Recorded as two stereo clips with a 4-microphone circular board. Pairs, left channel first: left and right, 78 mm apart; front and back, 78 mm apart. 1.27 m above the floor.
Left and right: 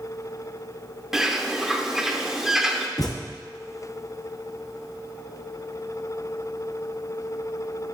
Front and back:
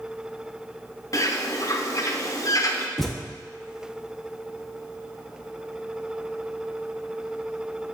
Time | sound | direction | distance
1.1 | a bird | 10° right | 0.6 m
3.0 | a thud | 90° left | 0.8 m